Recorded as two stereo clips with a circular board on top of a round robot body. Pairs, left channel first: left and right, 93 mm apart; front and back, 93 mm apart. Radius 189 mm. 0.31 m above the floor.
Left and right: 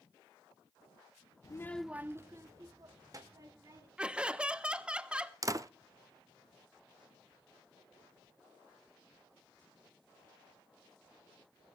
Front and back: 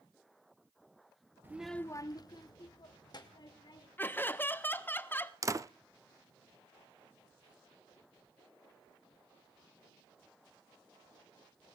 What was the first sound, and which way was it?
A child speaking, 125° left.